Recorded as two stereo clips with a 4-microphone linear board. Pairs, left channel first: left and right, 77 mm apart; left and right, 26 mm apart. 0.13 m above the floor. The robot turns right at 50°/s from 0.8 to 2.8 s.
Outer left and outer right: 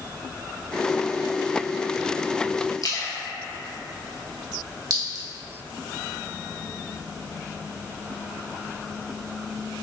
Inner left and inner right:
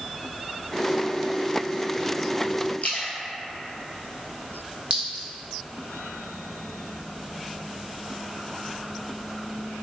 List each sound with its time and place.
2.8 s a splash: 55° left (ahead or behind), 0.6 m
4.9 s a clink: 50° right (ahead or behind), 0.9 m